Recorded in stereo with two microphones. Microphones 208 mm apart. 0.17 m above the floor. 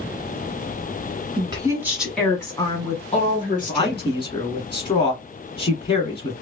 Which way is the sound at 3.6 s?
25° left (ahead or behind).